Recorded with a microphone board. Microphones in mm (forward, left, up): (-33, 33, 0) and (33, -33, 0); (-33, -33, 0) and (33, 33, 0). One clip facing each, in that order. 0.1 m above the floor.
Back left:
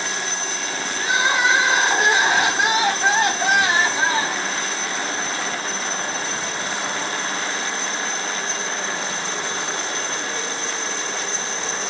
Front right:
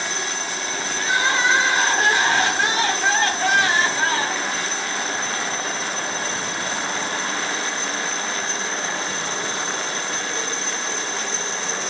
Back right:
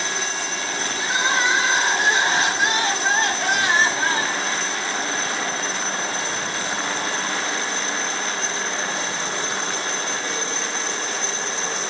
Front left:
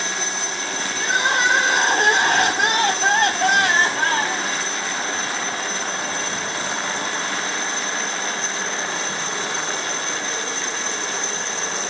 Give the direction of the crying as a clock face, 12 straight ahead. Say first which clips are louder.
Back left 1 dB, front left 2 dB; 10 o'clock.